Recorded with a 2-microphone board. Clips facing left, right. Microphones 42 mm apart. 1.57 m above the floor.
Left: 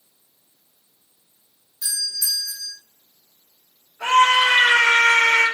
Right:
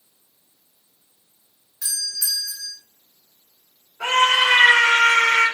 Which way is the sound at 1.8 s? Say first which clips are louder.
Left 1 dB; 75° right (ahead or behind).